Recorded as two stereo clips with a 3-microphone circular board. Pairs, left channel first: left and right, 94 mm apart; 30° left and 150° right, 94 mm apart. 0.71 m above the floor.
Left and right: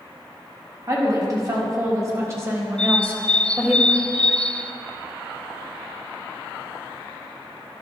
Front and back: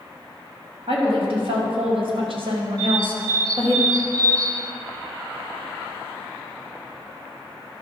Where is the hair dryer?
No hair dryer in this recording.